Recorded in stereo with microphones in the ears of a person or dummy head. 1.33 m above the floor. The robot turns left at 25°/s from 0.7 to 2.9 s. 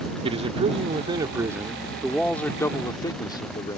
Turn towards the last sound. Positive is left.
turn(degrees=160)